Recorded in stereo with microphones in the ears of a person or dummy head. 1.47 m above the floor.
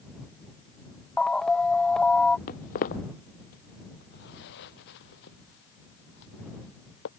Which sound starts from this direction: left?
Footsteps, at 2.5 s.